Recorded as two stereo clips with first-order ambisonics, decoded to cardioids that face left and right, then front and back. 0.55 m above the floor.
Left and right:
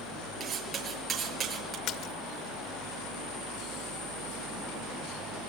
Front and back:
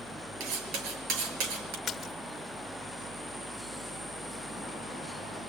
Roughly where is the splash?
Left.